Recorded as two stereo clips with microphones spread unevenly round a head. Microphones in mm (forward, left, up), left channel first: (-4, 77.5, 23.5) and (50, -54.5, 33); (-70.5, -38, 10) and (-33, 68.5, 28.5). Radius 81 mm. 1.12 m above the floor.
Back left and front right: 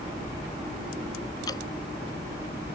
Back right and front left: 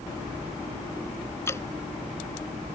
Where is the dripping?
Straight behind.